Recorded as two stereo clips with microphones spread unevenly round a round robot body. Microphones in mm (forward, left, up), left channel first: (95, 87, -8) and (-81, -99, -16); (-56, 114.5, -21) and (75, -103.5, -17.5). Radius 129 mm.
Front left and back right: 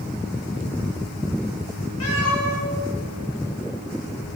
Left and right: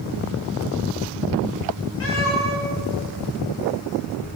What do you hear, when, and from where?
2.0 s a cat meowing: 80° left, 6.5 m